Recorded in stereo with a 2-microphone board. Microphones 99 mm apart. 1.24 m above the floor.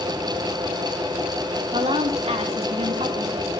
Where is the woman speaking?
85° right, 2.5 m.